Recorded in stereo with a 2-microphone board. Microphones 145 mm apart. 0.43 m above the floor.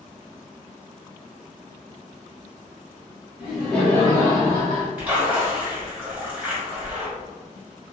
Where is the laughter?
10° right (ahead or behind), 1.2 m; by 4.9 s 45° left (ahead or behind), 1.5 m.